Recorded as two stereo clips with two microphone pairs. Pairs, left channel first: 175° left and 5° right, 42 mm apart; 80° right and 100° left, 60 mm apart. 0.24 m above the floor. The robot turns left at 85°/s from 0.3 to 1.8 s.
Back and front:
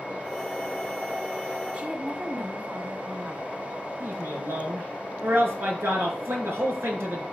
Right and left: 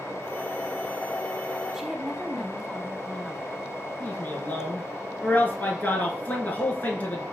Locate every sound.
1.7 s a woman speaking: 30° left, 1.4 m; by 3.7 s 25° left, 1.4 m
4.0 s a man speaking: 20° right, 4 m